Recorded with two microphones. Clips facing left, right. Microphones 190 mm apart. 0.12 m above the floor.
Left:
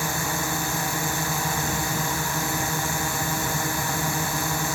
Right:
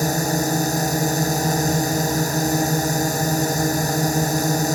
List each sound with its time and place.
0.0 s a drone: 40° right (ahead or behind)